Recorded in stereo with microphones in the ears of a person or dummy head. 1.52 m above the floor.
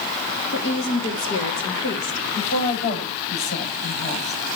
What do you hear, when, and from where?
0.5 s a woman speaking: 70° left (ahead or behind), 3 m
2.3 s a woman speaking: 60° left (ahead or behind), 9.5 m